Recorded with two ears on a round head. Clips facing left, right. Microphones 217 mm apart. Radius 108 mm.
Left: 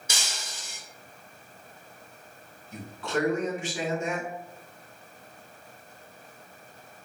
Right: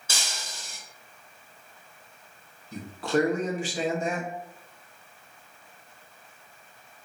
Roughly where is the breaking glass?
Centre.